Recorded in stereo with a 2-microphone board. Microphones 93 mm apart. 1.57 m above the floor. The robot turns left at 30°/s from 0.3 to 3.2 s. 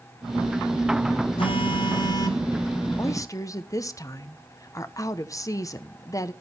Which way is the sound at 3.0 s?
30° left (ahead or behind).